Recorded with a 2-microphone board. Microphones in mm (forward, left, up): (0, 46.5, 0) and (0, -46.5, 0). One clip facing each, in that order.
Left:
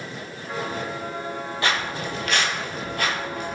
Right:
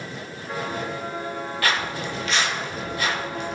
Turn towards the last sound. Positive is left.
turn(degrees=45)  # may be behind; listen again after turning